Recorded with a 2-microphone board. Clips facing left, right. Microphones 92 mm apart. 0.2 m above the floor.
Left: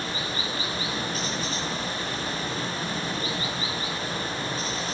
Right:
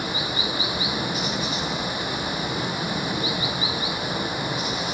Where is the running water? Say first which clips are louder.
Right 3 dB; 15° right (ahead or behind), 0.9 m.